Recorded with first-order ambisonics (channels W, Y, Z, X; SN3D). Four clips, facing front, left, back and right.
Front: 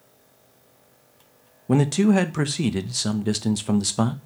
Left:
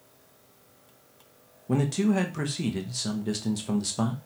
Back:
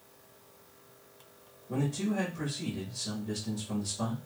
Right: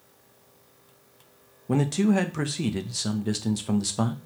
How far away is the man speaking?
About 0.6 m.